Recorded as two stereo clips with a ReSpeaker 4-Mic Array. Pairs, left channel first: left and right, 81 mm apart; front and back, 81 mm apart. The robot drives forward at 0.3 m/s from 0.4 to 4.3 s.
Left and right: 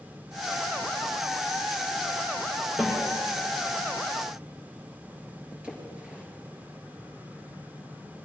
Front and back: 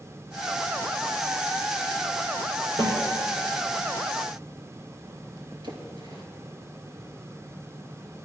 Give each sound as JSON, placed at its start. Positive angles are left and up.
{"t": 2.8, "sound": "a snare drum", "azimuth_deg": -170, "distance_m": 5.5}
{"t": 5.6, "sound": "a splash", "azimuth_deg": -165, "distance_m": 2.5}